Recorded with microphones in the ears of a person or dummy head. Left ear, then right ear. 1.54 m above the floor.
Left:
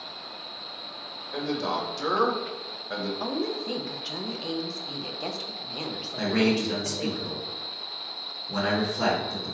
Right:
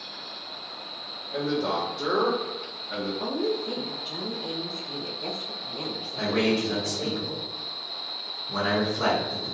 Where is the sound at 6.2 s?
20° left (ahead or behind), 1.4 m.